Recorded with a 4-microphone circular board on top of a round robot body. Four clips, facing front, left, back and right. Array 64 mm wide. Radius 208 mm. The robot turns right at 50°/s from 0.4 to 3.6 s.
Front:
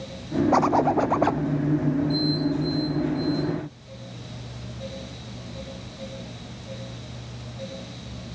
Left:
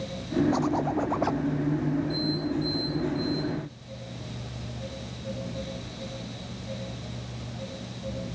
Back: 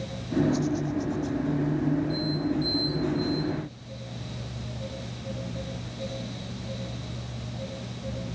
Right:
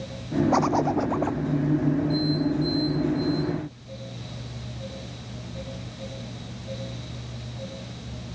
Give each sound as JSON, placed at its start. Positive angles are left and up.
{"t": 0.5, "sound": "a zipper", "azimuth_deg": -30}